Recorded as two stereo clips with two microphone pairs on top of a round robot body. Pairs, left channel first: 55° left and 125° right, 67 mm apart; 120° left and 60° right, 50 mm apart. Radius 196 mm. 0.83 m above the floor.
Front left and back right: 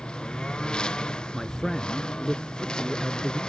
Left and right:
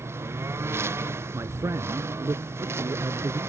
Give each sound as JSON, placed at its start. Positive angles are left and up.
{"t": 0.0, "sound": "a lawn mower", "azimuth_deg": -20}
{"t": 1.3, "sound": "a man speaking", "azimuth_deg": -30}